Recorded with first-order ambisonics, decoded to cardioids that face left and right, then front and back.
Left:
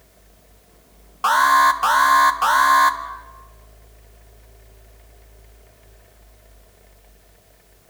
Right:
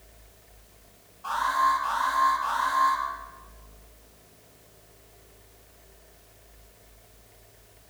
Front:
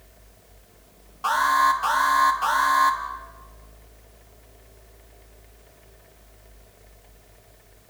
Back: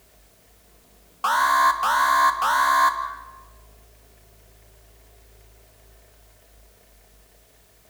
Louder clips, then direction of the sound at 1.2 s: Left 10 dB, back 1 dB; 110° left.